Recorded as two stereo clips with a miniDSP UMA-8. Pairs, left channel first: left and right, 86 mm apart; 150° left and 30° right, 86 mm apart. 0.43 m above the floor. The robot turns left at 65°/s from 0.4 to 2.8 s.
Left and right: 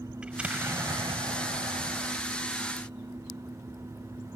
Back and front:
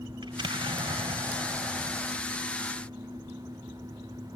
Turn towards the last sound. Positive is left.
turn(degrees=-170)